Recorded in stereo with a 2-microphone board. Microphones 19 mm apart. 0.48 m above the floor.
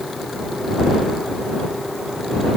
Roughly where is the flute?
No flute in this recording.